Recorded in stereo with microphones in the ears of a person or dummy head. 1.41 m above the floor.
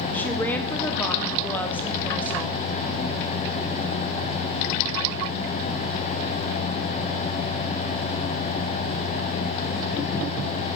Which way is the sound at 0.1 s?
10° left (ahead or behind).